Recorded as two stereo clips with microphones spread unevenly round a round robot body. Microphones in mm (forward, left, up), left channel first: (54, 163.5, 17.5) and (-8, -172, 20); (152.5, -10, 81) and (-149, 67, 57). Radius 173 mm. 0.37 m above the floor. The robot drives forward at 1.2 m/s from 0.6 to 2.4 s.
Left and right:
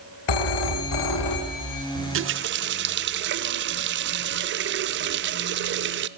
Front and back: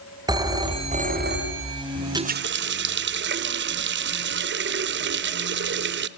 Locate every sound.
0.3 s a phone ringing: 90° left, 2.5 m; by 1.9 s 120° left, 3 m
1.9 s a running tap: 85° right, 0.5 m; by 6.1 s 150° right, 0.7 m